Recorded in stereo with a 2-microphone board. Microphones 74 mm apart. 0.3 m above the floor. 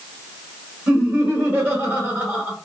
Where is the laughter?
25° right (ahead or behind), 1.6 m.